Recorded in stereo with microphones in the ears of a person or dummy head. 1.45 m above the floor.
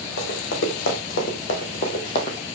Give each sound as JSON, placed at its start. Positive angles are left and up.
{"t": 0.2, "sound": "running footsteps", "side_deg": 55, "distance_m": 3.5}